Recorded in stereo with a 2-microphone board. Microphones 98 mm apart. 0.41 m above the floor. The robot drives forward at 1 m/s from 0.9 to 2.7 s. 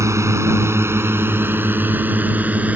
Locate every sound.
0.0 s a drone: 30° right (ahead or behind); by 2.8 s 15° right (ahead or behind)